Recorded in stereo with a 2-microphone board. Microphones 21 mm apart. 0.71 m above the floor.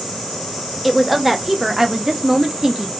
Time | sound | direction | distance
0.8 | a woman speaking | centre (ahead or behind) | 1.0 m